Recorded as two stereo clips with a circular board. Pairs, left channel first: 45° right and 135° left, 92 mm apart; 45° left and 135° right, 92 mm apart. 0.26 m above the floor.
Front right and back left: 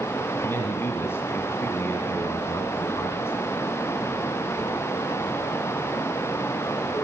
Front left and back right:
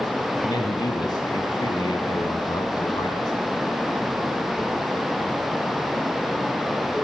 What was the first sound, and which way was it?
A man speaking, 15° left.